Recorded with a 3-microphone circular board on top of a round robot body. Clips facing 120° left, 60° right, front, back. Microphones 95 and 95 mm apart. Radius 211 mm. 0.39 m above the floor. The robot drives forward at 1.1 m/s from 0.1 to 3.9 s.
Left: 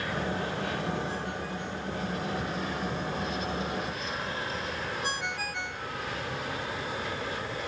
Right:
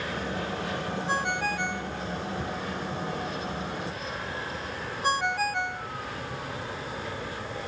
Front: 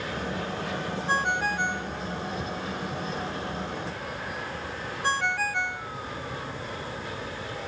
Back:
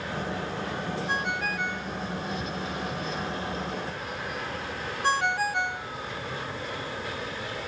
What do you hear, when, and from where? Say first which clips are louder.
1.1 s a ringtone: right 6 dB, front 6 dB; 55° right; by 5.9 s 105° right